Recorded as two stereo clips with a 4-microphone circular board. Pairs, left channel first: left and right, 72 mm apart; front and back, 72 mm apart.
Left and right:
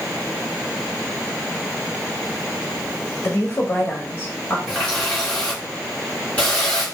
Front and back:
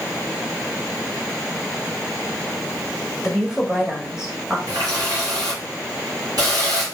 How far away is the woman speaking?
About 1.4 m.